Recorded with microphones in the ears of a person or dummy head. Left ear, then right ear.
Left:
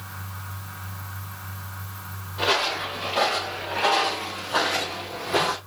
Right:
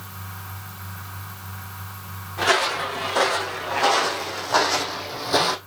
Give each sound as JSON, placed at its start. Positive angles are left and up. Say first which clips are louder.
{"t": 2.4, "sound": "footsteps", "louder": "right 3 dB", "side_deg": -65, "distance_m": 4.0}